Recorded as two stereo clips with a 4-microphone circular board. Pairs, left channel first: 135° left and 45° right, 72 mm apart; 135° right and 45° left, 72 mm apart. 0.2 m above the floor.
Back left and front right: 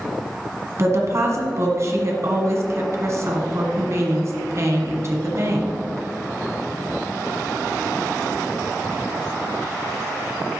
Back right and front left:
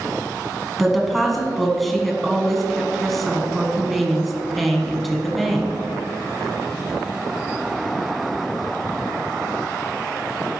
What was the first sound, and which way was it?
A woman speaking, 45° right.